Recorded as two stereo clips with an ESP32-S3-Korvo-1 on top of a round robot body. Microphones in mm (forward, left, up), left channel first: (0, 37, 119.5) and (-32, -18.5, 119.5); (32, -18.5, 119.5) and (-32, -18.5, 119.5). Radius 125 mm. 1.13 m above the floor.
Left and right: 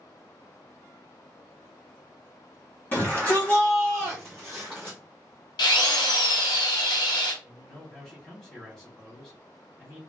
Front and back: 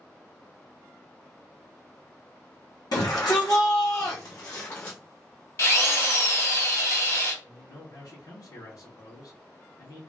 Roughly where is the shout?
Ahead.